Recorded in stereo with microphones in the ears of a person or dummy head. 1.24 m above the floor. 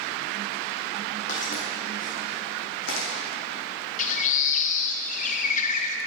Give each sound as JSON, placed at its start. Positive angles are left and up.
{"t": 1.3, "sound": "footsteps", "side_deg": 45, "distance_m": 3.5}
{"t": 4.0, "sound": "a bird", "side_deg": 50, "distance_m": 1.0}